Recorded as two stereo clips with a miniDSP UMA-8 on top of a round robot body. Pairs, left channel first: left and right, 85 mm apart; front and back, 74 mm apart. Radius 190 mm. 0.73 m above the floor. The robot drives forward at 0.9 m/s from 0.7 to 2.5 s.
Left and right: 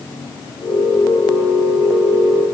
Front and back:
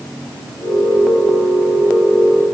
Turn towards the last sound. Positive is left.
No sound to turn to.